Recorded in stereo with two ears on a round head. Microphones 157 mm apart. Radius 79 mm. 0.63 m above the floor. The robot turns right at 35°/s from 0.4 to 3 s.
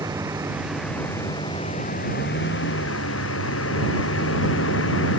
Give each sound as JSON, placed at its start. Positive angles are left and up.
{"t": 0.0, "sound": "a vehicle", "side_deg": -15}